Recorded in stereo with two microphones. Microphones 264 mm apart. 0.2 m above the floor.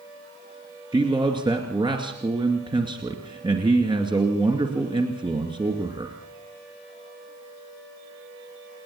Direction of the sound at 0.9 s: 15° right (ahead or behind).